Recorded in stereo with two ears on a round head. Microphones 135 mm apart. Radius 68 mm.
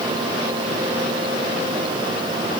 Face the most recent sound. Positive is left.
No sound to turn to.